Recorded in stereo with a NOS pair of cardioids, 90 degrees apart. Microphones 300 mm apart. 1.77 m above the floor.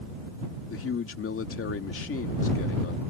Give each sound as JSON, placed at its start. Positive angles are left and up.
{"t": 0.7, "sound": "a man speaking", "azimuth_deg": 45}